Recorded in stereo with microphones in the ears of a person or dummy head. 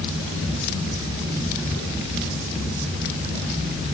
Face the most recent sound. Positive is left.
No sound to turn to.